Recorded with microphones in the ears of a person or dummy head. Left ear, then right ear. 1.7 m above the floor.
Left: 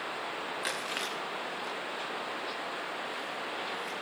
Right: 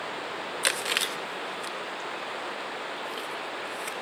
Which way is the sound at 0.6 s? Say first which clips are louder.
Right 9 dB; 25° right (ahead or behind).